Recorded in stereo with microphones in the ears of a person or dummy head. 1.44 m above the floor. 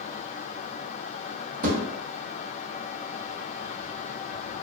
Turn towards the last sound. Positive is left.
turn(degrees=-50)  # may be behind; listen again after turning